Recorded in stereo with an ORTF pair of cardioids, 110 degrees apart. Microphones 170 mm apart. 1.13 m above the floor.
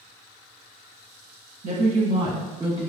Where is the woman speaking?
45° right, 1.4 m; by 2.9 s 25° right, 2.5 m.